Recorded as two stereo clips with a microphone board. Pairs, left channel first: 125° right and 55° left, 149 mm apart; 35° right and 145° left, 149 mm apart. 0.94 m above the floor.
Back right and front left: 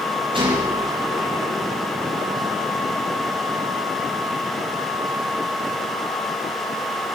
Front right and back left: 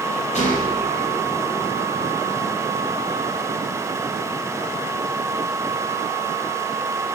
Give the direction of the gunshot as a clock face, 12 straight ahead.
12 o'clock.